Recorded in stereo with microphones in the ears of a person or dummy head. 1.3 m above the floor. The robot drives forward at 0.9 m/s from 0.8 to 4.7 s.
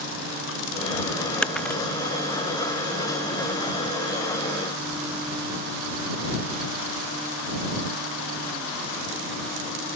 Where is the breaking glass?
5° left (ahead or behind).